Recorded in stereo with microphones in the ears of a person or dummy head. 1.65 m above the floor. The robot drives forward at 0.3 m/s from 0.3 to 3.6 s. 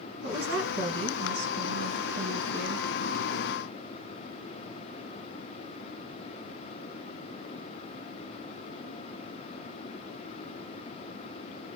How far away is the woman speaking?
About 2 m.